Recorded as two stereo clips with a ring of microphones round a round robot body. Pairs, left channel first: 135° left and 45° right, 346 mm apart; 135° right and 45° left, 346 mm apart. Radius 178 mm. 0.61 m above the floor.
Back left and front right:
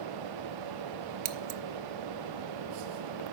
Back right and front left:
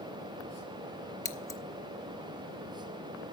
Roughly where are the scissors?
Ahead right.